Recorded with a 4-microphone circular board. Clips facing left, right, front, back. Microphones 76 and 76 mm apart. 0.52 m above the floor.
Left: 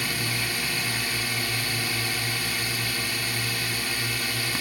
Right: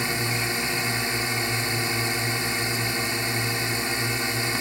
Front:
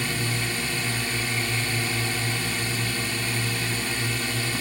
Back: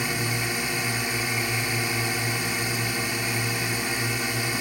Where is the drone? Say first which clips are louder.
Right 3 dB, back 1 dB; 125° right.